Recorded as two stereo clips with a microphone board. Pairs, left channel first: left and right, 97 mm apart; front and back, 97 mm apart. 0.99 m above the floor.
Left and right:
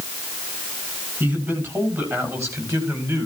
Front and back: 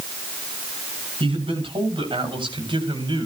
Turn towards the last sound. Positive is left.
turn(degrees=-145)